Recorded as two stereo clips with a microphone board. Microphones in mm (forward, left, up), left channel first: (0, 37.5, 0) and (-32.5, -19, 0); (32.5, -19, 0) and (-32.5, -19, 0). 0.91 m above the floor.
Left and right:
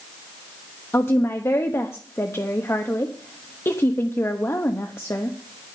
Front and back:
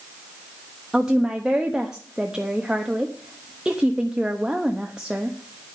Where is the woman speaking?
105° left, 1.1 m.